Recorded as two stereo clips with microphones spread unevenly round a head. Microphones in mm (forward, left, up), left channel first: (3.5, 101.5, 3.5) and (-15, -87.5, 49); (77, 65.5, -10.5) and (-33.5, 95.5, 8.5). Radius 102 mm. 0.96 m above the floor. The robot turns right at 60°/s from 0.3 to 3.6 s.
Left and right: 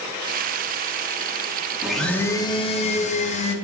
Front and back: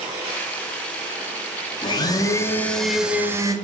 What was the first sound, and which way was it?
A blender, straight ahead.